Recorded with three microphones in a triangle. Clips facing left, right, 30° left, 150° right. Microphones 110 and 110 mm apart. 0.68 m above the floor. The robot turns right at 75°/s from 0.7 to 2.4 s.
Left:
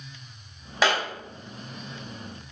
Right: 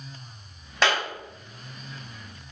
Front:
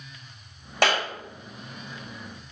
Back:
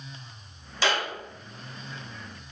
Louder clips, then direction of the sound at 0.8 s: Left 1 dB, front 3 dB; 5° left.